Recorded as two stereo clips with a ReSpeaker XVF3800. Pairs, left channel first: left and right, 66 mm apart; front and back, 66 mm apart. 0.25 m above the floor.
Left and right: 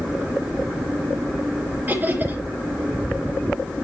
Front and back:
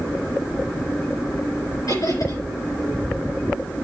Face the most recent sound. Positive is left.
turn(degrees=-25)